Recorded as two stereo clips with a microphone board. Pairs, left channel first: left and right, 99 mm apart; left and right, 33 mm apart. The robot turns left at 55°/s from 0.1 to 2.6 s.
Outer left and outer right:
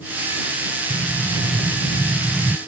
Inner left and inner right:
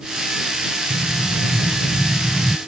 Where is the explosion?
25° right (ahead or behind); by 2.6 s 10° left (ahead or behind).